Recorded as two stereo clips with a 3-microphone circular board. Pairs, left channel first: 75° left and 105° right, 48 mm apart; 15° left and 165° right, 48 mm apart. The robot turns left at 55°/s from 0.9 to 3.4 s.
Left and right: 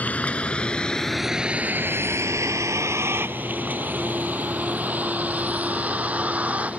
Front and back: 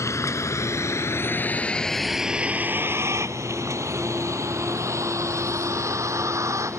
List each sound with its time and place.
0.0 s a vehicle: 15° left; by 6.8 s 165° right